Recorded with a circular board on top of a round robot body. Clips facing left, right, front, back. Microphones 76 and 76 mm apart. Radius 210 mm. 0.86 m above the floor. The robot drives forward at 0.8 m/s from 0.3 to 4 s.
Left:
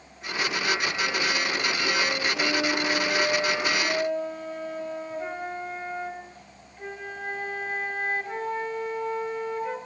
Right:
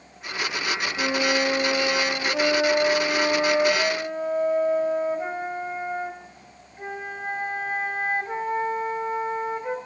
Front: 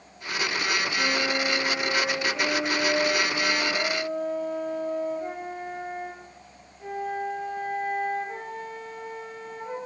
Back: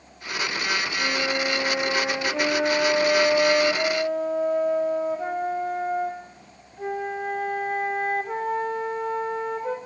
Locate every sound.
1.0 s a flute: 80° right, 0.9 m; by 9.8 s 160° right, 2.5 m